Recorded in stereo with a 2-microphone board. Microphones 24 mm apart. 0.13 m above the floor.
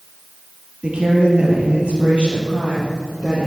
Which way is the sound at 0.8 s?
50° right (ahead or behind).